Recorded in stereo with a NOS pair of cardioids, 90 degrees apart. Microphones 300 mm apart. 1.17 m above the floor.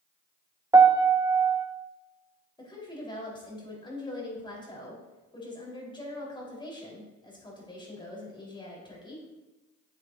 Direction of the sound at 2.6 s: 15° left.